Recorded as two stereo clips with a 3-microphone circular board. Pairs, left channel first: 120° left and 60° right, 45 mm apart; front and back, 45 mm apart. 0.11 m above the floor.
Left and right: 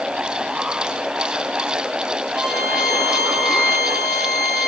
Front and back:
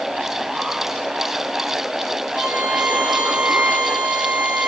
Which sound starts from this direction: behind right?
A violin, at 2.3 s.